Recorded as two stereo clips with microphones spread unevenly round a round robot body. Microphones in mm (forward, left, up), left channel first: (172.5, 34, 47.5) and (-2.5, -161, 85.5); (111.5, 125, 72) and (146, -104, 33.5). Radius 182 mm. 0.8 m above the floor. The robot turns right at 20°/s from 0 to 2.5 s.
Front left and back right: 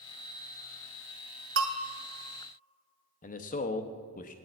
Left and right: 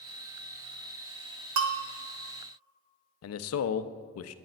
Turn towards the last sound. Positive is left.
turn(degrees=100)